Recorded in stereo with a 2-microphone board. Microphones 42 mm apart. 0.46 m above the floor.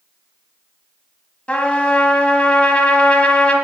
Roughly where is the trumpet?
Left.